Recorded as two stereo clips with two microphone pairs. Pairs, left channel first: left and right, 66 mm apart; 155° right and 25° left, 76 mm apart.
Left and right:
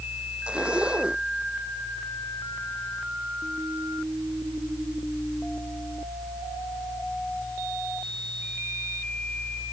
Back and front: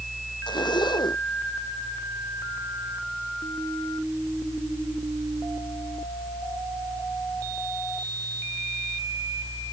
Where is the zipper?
165° right.